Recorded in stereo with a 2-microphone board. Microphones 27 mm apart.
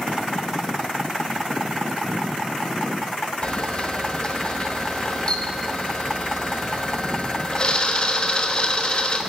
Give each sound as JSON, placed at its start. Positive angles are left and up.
{"t": 3.4, "sound": "a camera shutter", "side_deg": 40, "distance_m": 1.1}